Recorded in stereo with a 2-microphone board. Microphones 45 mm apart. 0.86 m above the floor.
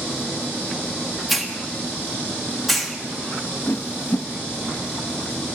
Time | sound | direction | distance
1.3 | a hiss | 5° left (ahead or behind) | 1.8 m
3.7 | a whoosh | 45° left (ahead or behind) | 0.9 m